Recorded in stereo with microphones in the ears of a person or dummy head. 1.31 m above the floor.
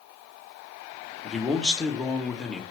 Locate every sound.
1.2 s a man speaking: 5° left (ahead or behind), 0.7 m